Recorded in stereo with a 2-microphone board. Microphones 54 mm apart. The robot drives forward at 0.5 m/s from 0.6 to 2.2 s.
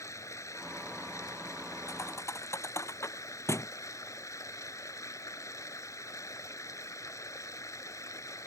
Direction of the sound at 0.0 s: 75° left (ahead or behind).